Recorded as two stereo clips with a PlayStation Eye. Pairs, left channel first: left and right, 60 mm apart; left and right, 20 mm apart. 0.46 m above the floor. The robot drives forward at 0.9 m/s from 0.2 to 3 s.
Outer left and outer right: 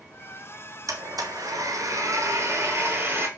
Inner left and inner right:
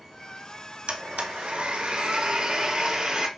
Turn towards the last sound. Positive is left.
turn(degrees=-40)  # may be behind; listen again after turning